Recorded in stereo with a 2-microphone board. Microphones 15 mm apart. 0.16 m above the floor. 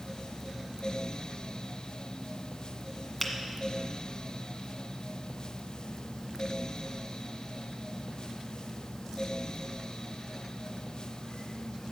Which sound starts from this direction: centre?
A finger snap, at 3.2 s.